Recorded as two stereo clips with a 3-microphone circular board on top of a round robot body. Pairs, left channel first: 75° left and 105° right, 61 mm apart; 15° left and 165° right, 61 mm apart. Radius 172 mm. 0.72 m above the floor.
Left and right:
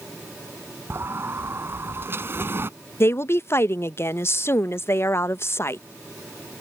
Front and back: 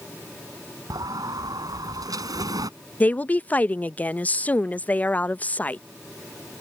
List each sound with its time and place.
0.9 s a sliding door: 160° right
3.0 s a woman speaking: 70° left